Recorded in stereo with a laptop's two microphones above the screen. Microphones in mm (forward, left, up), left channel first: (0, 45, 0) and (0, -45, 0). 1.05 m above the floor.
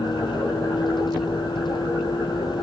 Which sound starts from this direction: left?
A vehicle, at 0.0 s.